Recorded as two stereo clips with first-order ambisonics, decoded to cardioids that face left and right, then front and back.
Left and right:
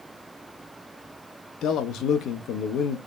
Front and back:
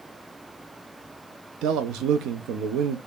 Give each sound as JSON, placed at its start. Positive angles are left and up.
{"t": 1.6, "sound": "a man speaking", "azimuth_deg": 140, "distance_m": 0.5}